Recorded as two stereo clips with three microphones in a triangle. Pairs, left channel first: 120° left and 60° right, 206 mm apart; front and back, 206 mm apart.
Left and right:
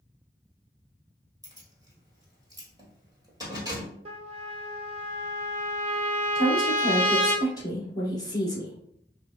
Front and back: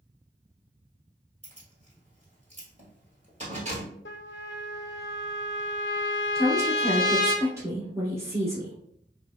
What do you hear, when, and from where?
1.4 s keys jangling: 130° right, 1.3 m
4.0 s a trumpet: straight ahead, 0.7 m
6.3 s a woman speaking: 135° left, 1.1 m